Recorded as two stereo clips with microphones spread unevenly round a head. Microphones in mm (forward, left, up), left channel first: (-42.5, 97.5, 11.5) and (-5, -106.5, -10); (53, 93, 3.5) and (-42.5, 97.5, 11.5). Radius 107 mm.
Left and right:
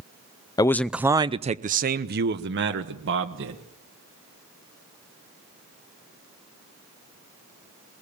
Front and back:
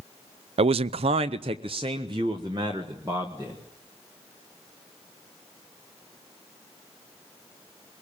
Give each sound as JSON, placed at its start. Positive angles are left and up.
{"t": 0.6, "sound": "a man speaking", "azimuth_deg": 175, "distance_m": 0.5}